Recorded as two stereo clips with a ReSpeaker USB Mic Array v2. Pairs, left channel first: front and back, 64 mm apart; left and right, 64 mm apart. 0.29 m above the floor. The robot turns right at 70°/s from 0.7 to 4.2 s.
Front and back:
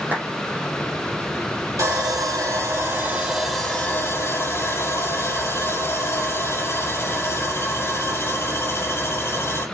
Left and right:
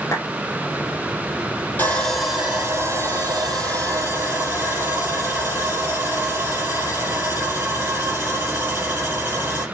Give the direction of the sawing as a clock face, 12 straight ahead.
7 o'clock.